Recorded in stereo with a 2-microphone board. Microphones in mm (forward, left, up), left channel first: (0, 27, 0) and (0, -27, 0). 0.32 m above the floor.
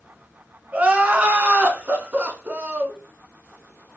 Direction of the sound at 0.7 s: 25° right (ahead or behind).